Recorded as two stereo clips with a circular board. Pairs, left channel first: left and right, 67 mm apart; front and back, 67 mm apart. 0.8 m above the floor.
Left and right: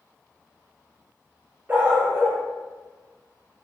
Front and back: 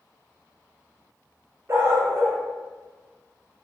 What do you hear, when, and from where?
1.7 s a dog barking: 145° right, 0.6 m